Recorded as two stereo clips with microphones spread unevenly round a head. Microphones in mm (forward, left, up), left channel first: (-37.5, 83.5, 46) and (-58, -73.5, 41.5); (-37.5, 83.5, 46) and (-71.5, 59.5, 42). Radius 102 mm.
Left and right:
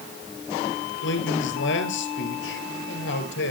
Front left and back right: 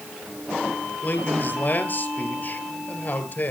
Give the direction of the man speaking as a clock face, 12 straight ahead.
9 o'clock.